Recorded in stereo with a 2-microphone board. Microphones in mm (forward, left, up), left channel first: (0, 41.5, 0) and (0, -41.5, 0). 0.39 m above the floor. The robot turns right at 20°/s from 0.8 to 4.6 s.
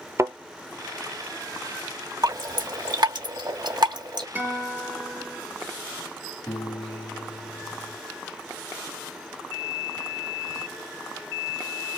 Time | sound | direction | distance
0.2 | a thud | 35° right (ahead or behind) | 0.6 m
2.2 | dripping | 50° right (ahead or behind) | 2 m
4.3 | a guitar | 20° right (ahead or behind) | 1.3 m
6.5 | a piano | 25° left (ahead or behind) | 2.5 m